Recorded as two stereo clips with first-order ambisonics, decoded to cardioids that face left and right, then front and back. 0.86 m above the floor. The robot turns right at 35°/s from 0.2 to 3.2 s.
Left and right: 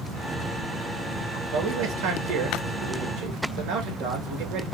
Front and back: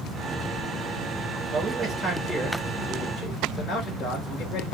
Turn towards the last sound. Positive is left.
turn(degrees=-60)